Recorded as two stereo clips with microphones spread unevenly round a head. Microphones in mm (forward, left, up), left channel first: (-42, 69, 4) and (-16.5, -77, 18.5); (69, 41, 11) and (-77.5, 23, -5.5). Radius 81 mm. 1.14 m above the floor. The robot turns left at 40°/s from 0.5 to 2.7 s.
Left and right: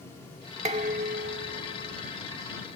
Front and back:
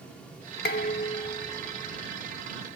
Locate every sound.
0.7 s dishes clattering: 25° right; by 2.1 s 85° right